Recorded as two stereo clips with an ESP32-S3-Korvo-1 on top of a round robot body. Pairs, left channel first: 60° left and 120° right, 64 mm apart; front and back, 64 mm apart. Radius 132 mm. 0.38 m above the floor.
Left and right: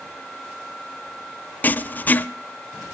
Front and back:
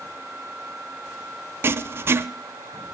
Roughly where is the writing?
Behind left.